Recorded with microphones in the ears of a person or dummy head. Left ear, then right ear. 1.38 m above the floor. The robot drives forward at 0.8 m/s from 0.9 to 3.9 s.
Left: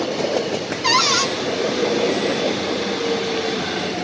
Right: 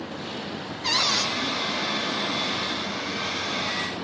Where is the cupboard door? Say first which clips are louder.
Left 6 dB; 60° left (ahead or behind), 1.5 m; by 1.3 s 50° left (ahead or behind), 1.6 m.